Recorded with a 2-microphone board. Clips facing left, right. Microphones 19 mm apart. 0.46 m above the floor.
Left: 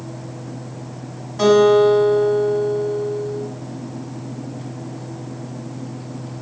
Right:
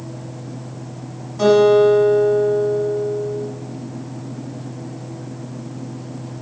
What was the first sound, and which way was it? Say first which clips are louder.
A guitar: even; 25° left (ahead or behind).